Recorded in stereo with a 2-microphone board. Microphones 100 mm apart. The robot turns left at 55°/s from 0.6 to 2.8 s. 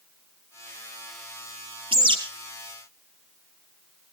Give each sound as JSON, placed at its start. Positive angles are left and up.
{"t": 1.9, "sound": "a bird", "side_deg": -65, "distance_m": 3.5}